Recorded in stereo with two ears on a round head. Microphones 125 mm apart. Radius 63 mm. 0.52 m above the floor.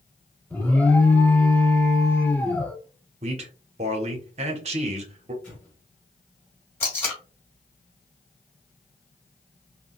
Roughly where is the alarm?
Centre.